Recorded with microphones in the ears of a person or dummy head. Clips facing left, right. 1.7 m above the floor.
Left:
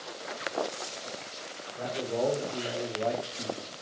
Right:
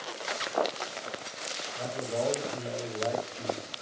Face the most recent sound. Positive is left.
turn(degrees=-5)  # may be behind; listen again after turning